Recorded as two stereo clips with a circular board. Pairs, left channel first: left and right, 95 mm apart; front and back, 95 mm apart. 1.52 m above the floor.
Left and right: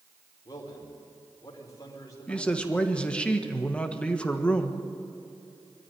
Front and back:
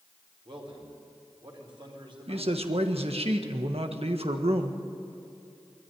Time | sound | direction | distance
0.5 | a man speaking | 145° left | 5 m
2.3 | a man speaking | 170° left | 1.6 m